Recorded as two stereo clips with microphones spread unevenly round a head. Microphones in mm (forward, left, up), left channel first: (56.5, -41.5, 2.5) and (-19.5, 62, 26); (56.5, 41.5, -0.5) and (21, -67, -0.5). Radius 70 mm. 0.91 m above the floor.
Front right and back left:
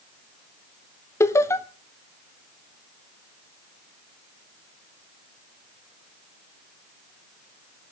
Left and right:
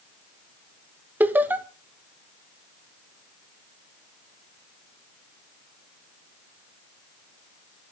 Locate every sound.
1.2 s laughter: 50° right, 0.9 m